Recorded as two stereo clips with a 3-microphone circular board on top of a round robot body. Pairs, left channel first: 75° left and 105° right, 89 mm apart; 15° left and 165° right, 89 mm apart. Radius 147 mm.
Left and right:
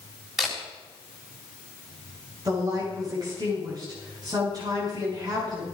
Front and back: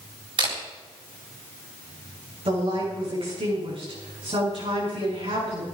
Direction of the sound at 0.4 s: 170° left.